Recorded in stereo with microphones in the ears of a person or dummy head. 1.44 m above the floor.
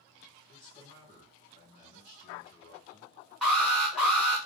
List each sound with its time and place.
0.5 s a man speaking: 25° left (ahead or behind), 3 m
3.4 s an alarm: centre (ahead or behind), 3 m